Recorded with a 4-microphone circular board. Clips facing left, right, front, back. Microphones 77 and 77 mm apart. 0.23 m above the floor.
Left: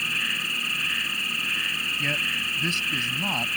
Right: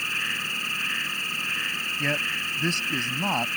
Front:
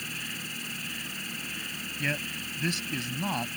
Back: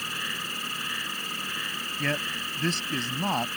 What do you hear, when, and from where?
0.0 s an insect: 170° right
2.0 s a man speaking: 135° right